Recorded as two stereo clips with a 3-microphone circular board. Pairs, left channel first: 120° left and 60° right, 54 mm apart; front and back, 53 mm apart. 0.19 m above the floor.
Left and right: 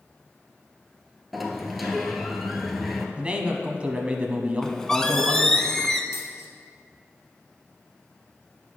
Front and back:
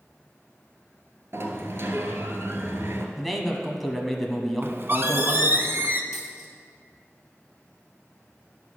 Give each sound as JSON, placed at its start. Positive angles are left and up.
{"t": 1.3, "sound": "a sliding door", "azimuth_deg": -150, "distance_m": 0.9}
{"t": 3.2, "sound": "a man speaking", "azimuth_deg": -90, "distance_m": 1.0}
{"t": 4.6, "sound": "a squeak", "azimuth_deg": -165, "distance_m": 0.5}
{"t": 6.1, "sound": "a dropped coin", "azimuth_deg": 95, "distance_m": 1.4}